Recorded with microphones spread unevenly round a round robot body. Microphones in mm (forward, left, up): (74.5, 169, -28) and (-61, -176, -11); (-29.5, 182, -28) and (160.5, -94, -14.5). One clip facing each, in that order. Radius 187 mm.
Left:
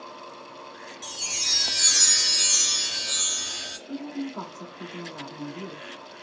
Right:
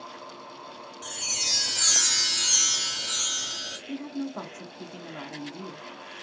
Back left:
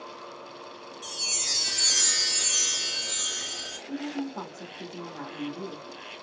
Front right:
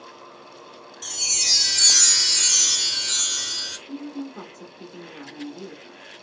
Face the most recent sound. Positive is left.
turn(degrees=-165)